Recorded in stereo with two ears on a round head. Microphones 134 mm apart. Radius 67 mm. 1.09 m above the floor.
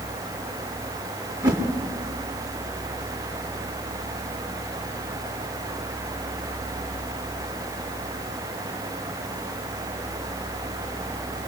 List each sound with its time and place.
1.4 s a whoosh: 25° right (ahead or behind), 1.6 m